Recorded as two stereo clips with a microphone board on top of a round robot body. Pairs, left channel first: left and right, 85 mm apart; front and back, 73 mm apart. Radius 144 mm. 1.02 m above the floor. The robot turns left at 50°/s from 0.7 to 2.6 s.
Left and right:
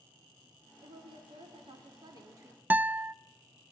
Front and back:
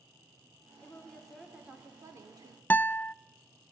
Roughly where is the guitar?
Ahead right.